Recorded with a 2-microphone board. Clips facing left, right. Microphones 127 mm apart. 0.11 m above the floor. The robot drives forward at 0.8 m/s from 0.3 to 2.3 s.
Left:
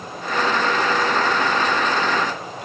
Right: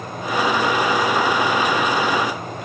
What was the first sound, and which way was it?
Only background noise.